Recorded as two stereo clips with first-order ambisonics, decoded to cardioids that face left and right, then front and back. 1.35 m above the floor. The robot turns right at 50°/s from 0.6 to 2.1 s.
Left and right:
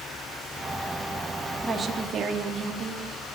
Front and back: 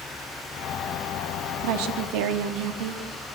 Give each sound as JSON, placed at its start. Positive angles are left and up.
{"t": 1.6, "sound": "a woman speaking", "azimuth_deg": -175, "distance_m": 2.5}